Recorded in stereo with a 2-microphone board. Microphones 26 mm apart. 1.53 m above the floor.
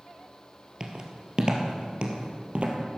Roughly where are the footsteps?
Right.